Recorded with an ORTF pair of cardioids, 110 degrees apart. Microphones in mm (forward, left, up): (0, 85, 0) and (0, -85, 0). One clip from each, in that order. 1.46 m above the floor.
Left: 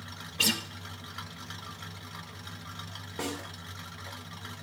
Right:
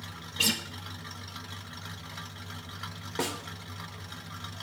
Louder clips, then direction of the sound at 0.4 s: Even; 10° left.